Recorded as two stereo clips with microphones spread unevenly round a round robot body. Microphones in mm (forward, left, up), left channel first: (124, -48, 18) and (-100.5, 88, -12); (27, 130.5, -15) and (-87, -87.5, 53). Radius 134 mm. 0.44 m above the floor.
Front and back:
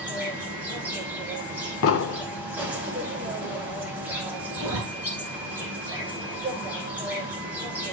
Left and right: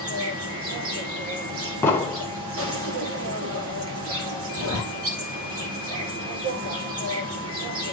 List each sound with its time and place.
0.0 s an insect: 135° right, 3 m
1.8 s an explosion: 5° right, 0.8 m
4.5 s a zipper: 150° right, 6.5 m